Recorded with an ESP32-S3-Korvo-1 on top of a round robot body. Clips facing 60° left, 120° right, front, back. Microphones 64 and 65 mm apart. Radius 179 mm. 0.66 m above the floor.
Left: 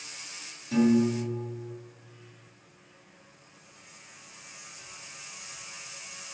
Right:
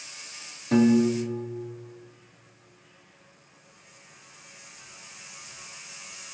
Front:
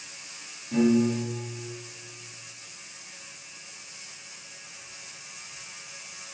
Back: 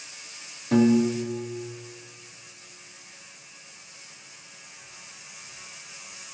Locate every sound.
0.7 s a piano: 155° right, 1.2 m